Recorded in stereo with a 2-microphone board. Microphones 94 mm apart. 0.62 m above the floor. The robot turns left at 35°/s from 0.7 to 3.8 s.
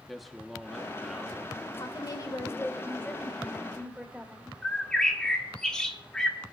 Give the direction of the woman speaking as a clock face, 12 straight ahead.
10 o'clock.